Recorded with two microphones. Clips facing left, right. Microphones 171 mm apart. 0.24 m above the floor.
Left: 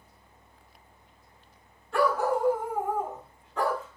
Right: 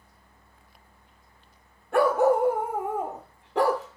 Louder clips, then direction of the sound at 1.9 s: Right 5 dB; 55° right (ahead or behind).